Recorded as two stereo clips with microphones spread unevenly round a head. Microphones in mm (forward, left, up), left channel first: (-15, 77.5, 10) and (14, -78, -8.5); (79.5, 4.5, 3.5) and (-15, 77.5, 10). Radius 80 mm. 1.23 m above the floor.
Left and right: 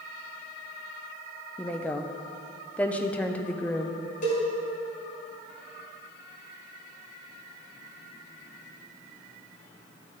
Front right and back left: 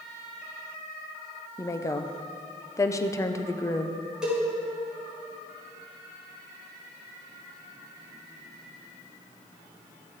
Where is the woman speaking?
15° left, 0.7 m.